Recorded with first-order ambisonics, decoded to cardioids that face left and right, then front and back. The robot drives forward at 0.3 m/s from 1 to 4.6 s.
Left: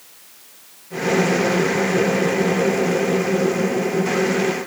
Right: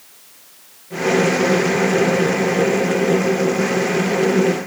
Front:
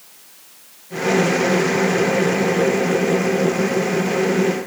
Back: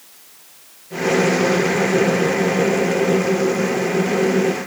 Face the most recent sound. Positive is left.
No sound to turn to.